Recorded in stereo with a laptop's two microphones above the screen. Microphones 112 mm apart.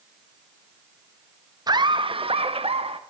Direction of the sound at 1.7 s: 40° right (ahead or behind).